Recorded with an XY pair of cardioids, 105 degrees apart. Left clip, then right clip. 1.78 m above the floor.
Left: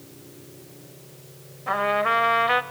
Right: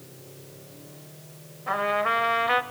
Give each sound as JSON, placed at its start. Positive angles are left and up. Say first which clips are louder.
{"t": 1.7, "sound": "a trumpet", "louder": "left 2 dB", "azimuth_deg": 15, "distance_m": 0.8}